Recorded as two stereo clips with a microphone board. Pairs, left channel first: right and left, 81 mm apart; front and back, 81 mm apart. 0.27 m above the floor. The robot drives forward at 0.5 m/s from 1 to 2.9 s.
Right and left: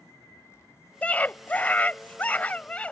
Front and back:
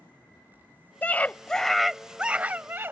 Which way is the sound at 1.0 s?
40° right.